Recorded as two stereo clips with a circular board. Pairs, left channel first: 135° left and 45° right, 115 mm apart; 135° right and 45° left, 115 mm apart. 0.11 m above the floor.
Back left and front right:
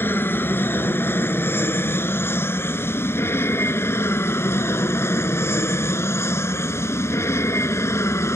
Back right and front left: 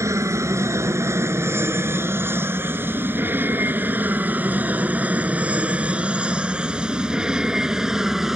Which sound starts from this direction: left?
An aircraft, at 0.0 s.